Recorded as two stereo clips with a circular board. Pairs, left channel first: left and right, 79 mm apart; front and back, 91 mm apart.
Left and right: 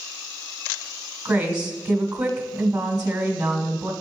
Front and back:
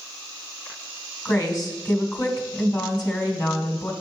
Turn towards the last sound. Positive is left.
turn(degrees=-30)